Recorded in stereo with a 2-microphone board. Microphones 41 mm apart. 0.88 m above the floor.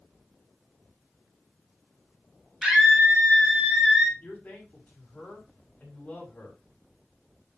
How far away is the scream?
About 4 m.